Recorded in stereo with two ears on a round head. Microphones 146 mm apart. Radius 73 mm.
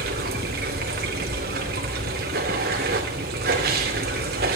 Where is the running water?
65° right (ahead or behind), 2.5 m.